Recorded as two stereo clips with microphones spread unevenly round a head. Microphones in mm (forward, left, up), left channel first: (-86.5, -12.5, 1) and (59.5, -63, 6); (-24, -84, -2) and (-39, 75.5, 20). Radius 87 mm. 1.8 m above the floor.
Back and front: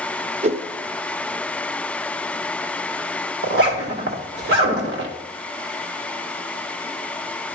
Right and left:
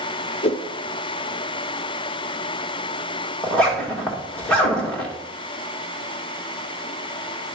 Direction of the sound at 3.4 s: Straight ahead.